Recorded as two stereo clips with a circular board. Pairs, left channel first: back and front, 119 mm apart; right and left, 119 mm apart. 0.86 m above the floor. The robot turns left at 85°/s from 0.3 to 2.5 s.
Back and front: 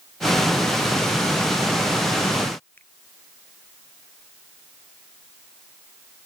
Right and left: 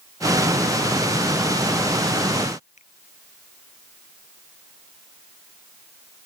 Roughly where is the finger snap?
Right.